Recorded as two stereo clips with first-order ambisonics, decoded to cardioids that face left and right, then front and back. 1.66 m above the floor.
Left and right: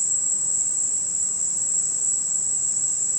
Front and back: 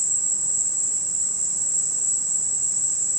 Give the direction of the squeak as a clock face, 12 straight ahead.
I don't hear a squeak.